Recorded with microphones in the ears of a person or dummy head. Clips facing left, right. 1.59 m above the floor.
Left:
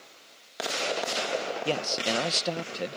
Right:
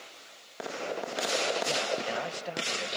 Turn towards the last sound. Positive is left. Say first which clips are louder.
# left 2 dB
turn(degrees=55)  # may be behind; listen again after turning